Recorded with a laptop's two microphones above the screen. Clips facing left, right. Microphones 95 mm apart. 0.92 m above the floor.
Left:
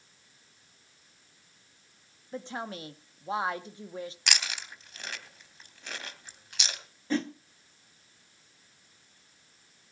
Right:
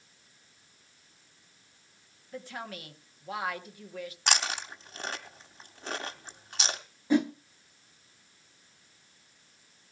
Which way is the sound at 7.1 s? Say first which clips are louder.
Right 5 dB; 15° right (ahead or behind).